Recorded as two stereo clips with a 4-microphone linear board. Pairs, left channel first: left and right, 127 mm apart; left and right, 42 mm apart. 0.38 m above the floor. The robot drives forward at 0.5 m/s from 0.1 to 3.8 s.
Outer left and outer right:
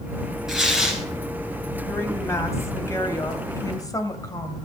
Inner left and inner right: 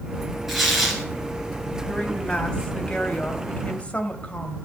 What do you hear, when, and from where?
0.5 s tearing paper: 5° right (ahead or behind), 3 m
1.9 s a woman speaking: 20° left (ahead or behind), 2.5 m; by 4.6 s 30° left (ahead or behind), 1.8 m